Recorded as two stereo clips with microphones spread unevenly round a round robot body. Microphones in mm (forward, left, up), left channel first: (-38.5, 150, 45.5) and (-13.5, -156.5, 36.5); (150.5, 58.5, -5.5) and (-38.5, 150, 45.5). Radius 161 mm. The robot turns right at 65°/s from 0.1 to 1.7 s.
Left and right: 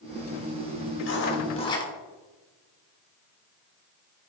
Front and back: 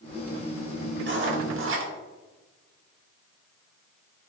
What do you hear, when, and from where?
1.0 s writing: 125° left, 1.5 m; by 1.9 s 170° left, 1.5 m